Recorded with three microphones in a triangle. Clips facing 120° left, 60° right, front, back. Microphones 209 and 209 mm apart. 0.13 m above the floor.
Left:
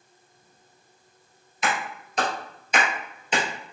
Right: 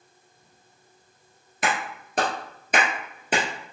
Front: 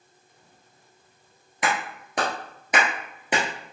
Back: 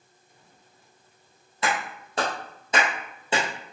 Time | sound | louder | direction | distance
1.6 | a clap | right 1 dB, front 1 dB | 70° right | 1.7 m